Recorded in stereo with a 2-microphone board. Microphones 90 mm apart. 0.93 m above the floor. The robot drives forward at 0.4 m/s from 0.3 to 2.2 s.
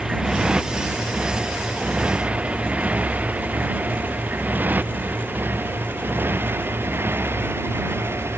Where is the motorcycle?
10° right (ahead or behind); by 8.4 s 25° right (ahead or behind).